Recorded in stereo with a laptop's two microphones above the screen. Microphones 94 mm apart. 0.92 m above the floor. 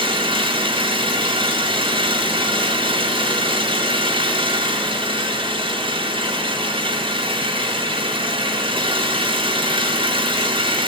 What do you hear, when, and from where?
0.0 s an engine running: 90° right, 6 m